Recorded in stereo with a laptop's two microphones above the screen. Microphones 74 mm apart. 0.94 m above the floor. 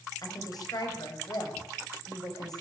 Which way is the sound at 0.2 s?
55° left (ahead or behind).